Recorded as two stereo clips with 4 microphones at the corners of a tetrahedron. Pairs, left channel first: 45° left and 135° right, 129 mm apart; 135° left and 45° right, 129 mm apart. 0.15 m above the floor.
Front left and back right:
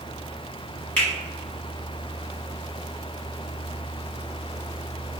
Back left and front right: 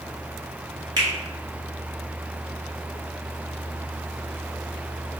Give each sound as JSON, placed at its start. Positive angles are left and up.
{"t": 1.0, "sound": "a finger snap", "azimuth_deg": -25, "distance_m": 1.2}